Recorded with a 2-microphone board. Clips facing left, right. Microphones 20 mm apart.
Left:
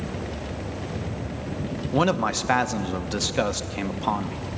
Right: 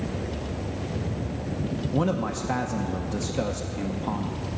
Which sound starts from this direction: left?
A man speaking, at 1.9 s.